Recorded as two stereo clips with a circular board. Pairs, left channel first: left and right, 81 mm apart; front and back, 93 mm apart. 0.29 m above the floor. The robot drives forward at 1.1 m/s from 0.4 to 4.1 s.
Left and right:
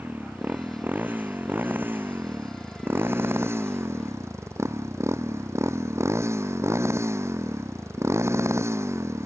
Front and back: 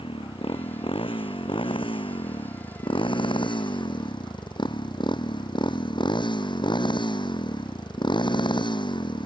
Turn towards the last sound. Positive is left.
turn(degrees=-35)